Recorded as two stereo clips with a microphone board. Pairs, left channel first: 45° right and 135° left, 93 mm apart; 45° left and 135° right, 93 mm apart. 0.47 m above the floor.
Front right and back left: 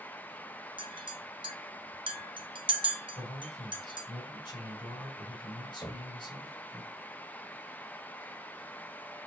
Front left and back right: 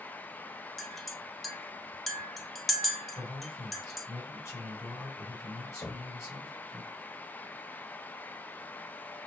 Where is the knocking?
5° right, 1.1 m.